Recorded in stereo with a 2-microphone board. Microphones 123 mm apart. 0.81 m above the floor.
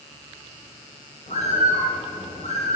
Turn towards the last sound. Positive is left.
turn(degrees=75)  # may be behind; listen again after turning